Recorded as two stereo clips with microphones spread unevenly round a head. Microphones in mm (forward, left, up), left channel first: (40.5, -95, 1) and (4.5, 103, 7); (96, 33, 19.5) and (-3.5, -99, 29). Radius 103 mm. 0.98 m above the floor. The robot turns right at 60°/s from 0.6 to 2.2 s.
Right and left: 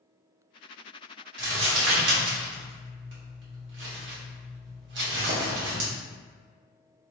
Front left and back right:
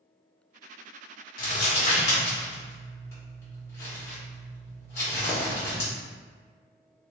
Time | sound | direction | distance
1.4 | crumpling | 75° left | 1.4 m